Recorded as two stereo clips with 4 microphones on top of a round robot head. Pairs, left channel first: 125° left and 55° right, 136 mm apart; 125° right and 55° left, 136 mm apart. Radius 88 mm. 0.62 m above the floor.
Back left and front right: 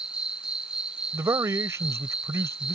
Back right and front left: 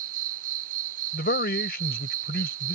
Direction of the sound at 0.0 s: 30° left.